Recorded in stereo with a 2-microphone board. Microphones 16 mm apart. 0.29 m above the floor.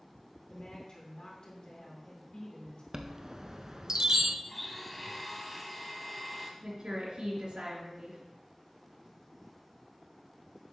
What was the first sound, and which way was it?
A woman speaking, 55° left (ahead or behind).